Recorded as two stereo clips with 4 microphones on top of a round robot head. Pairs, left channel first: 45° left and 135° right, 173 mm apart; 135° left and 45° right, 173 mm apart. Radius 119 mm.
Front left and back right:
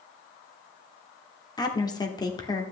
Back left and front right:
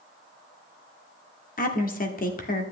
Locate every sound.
1.6 s a woman speaking: 110° left, 1.5 m